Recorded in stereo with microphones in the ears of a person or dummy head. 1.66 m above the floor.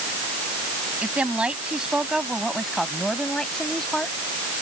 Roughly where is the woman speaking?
Centre.